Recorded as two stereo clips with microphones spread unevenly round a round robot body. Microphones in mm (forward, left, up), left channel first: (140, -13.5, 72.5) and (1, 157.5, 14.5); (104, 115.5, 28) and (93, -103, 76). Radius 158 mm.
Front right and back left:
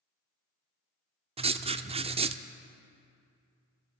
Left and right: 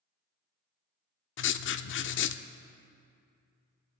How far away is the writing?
About 0.6 m.